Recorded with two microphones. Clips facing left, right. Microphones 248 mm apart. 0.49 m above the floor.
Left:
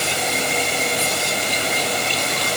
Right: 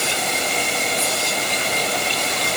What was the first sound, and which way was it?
Only background noise.